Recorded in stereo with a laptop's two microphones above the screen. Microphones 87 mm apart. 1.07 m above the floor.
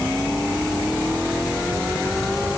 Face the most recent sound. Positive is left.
No sound to turn to.